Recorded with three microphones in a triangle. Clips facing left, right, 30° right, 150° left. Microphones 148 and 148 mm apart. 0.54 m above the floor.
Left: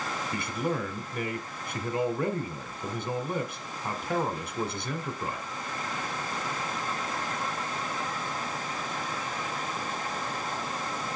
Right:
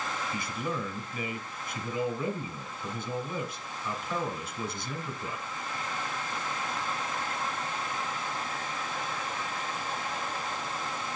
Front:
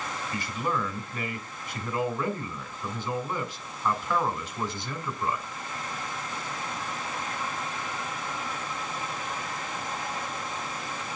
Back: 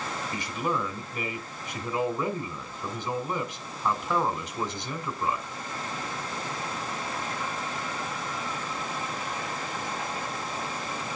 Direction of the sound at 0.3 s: 80° left.